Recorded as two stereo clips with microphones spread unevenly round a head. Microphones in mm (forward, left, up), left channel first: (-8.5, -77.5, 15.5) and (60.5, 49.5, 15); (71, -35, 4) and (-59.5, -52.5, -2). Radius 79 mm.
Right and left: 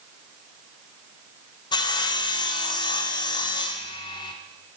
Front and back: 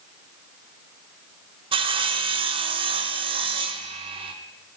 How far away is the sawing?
About 0.9 m.